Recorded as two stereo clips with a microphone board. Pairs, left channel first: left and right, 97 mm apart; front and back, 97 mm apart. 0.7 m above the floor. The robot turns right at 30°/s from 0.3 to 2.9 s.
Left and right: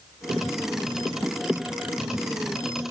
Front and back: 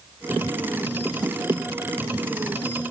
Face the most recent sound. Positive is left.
No sound to turn to.